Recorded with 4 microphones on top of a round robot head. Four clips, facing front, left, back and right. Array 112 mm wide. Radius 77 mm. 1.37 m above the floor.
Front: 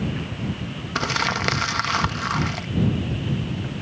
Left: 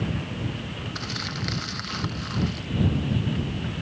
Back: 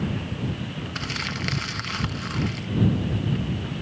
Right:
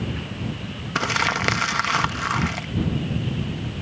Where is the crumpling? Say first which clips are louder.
Right 15 dB, front 11 dB; 50° right.